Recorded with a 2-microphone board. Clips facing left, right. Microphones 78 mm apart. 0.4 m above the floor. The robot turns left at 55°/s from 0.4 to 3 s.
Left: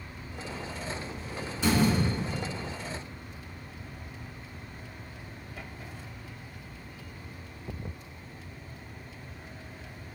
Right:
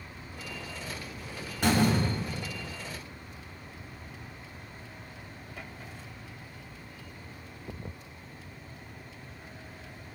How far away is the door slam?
About 1.7 m.